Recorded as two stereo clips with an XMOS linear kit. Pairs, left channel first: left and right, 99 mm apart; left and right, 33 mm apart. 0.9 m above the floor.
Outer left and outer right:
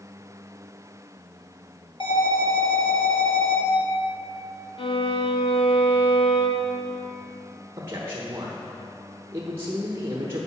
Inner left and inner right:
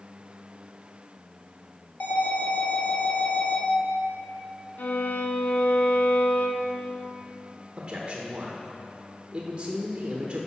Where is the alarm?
55° left (ahead or behind), 2 m.